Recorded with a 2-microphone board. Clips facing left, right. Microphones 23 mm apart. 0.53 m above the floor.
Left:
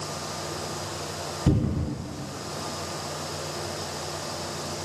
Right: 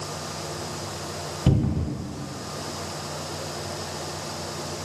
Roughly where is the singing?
No singing in this recording.